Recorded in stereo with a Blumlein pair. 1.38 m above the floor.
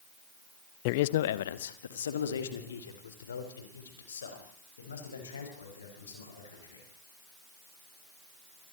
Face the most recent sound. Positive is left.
turn(degrees=70)